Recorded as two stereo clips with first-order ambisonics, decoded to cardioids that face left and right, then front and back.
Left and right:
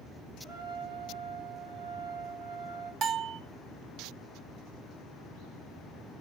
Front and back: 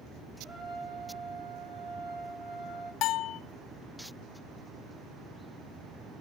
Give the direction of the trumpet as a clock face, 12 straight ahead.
4 o'clock.